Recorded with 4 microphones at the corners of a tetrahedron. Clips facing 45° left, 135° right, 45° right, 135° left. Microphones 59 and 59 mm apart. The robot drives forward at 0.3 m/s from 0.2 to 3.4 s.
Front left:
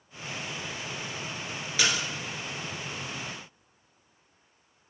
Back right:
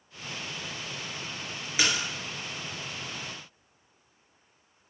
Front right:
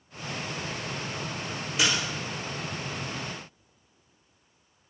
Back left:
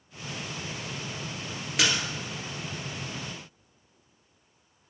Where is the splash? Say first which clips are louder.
Even, even; 150° left, 2 m; by 2.1 s 155° left, 2.5 m.